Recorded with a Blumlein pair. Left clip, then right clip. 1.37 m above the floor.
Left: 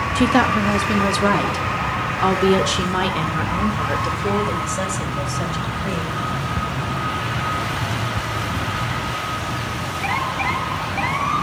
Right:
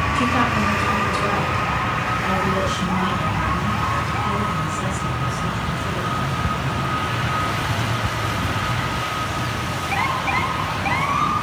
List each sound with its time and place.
0.1 s a woman speaking: 70° left, 2 m; by 6.2 s 50° left, 7 m